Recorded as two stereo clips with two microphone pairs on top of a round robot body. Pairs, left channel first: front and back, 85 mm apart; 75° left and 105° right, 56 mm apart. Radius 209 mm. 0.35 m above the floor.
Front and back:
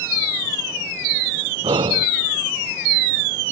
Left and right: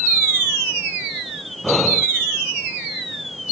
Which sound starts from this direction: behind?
Breathing, at 1.6 s.